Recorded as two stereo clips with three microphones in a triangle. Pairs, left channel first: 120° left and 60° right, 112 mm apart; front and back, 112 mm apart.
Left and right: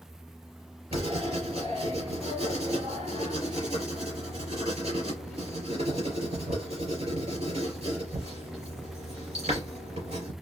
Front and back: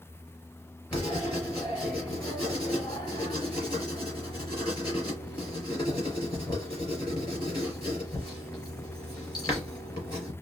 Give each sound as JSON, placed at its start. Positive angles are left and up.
{"t": 0.9, "sound": "writing", "azimuth_deg": -50, "distance_m": 3.5}